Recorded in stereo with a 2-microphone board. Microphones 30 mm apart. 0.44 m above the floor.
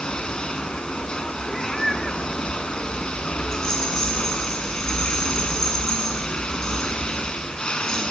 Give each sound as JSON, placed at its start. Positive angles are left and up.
{"t": 0.0, "sound": "running water", "side_deg": 30, "distance_m": 0.9}
{"t": 1.5, "sound": "a cat meowing", "side_deg": 10, "distance_m": 1.0}
{"t": 3.5, "sound": "a rattle", "side_deg": 20, "distance_m": 6.0}